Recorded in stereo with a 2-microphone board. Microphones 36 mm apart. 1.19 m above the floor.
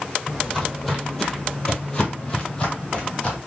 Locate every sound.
0.3 s footsteps: 10° right (ahead or behind), 1.7 m; by 3.4 s 25° left (ahead or behind), 2 m